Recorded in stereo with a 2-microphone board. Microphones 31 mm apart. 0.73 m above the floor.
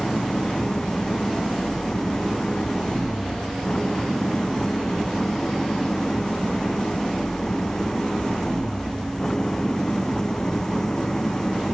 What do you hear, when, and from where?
0.0 s an engine running: 20° left (ahead or behind)